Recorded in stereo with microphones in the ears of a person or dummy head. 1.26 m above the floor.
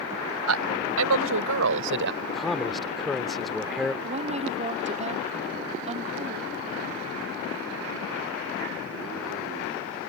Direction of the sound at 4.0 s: 35° right (ahead or behind).